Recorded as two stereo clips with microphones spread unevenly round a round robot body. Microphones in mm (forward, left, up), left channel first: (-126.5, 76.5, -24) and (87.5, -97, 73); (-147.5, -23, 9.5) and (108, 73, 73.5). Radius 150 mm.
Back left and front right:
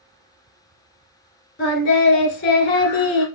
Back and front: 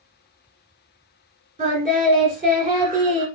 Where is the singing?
85° left, 1.9 m.